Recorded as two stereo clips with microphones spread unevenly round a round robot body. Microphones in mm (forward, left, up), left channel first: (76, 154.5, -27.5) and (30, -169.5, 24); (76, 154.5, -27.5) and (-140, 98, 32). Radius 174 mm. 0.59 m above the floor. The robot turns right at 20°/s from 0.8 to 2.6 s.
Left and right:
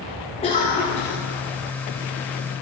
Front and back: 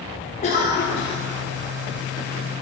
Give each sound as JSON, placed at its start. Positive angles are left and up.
{"t": 0.4, "sound": "a cough", "azimuth_deg": 25, "distance_m": 1.5}